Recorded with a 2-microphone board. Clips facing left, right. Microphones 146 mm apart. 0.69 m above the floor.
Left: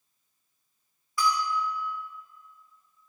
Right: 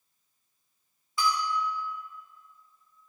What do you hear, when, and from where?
1.2 s a bell: 25° right (ahead or behind), 1.2 m